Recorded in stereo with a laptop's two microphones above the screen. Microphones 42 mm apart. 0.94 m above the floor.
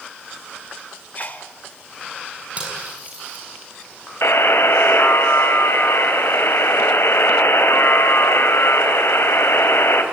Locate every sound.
1.1 s a sneeze: 40° left (ahead or behind), 4 m
2.6 s cutlery clinking: 30° right (ahead or behind), 6.5 m
4.2 s a buzzer: 80° left, 3 m